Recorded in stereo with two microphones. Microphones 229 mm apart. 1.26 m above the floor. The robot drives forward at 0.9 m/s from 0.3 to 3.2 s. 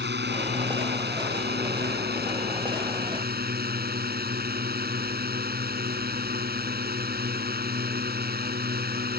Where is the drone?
55° right (ahead or behind); by 9.2 s 45° right (ahead or behind).